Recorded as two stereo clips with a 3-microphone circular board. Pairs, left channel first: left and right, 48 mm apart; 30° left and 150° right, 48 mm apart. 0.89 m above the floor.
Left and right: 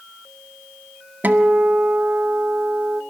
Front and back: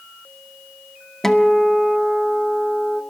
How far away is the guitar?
About 0.8 m.